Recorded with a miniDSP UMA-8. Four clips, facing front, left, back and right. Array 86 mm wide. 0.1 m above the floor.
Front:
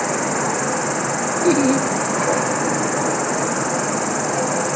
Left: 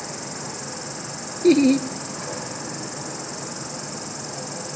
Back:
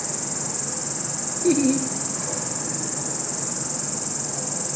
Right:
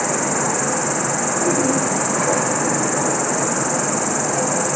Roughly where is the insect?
Ahead right.